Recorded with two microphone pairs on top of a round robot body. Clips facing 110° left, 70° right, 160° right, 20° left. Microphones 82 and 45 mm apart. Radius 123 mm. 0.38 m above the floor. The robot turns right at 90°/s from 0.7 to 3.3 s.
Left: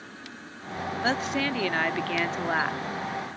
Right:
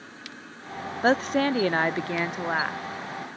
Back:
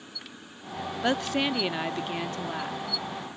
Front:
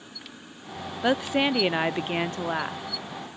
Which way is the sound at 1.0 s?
90° right.